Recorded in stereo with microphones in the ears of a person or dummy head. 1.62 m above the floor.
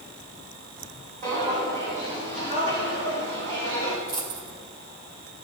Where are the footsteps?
45° right (ahead or behind), 4 m; by 4.0 s 65° right (ahead or behind), 3.5 m.